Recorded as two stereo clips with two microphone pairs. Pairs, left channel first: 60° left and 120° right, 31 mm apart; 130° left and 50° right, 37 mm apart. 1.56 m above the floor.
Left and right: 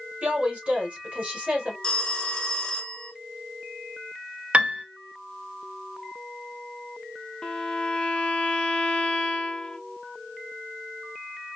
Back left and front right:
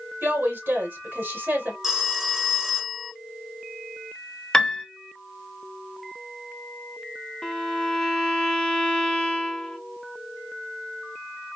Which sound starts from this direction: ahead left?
A phone ringing, at 1.8 s.